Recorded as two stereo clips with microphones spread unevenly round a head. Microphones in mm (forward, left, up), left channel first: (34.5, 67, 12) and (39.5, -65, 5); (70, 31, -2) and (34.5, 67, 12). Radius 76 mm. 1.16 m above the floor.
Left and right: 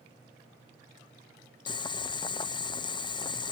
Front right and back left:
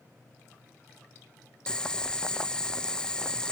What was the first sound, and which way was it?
Boiling, 35° left.